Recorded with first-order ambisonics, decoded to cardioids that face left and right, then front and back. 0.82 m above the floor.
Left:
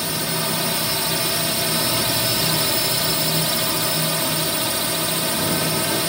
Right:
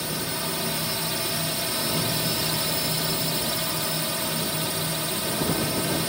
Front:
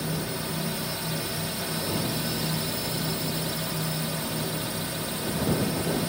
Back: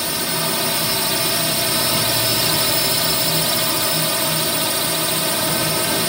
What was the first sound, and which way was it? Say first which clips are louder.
A drone: left 5 dB, back 10 dB; 155° left.